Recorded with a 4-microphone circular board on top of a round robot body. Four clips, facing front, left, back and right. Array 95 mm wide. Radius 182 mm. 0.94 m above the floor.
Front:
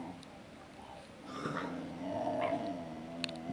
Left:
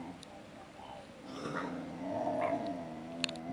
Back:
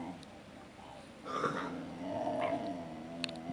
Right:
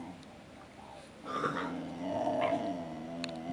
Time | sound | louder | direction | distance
1.2 | a cough | right 5 dB, back 3 dB | 145° right | 5 m